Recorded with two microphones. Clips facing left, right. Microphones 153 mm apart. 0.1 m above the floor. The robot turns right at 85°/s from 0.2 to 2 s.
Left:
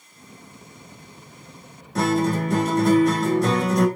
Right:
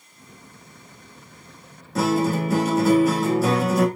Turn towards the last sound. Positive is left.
turn(degrees=-5)  # may be behind; listen again after turning